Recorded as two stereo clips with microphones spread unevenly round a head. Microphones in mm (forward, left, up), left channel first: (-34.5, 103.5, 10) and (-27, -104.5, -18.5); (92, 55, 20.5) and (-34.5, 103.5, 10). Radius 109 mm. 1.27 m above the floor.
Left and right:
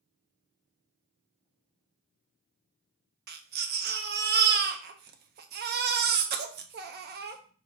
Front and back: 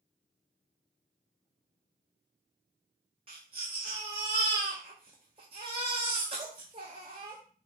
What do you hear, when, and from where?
3.3 s a baby crying: 135° right, 0.6 m